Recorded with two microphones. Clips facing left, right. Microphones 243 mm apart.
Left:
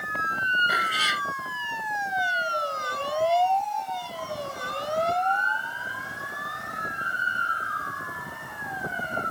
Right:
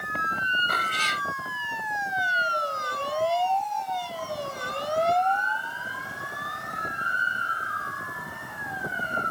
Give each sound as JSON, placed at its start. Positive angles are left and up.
{"t": 0.7, "sound": "a cat meowing", "side_deg": 10}